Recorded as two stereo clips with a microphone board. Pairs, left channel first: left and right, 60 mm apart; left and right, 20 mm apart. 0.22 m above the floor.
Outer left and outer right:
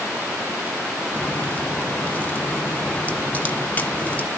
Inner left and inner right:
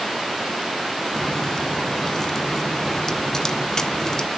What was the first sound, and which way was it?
A crack, 25° left (ahead or behind).